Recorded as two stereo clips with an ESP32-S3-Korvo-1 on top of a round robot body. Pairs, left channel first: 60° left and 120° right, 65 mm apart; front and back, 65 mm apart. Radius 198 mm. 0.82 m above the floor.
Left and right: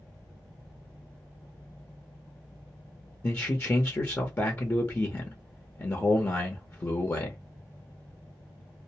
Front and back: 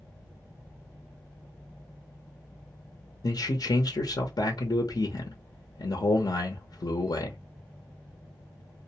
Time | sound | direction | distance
3.2 | a man speaking | 10° left | 0.8 m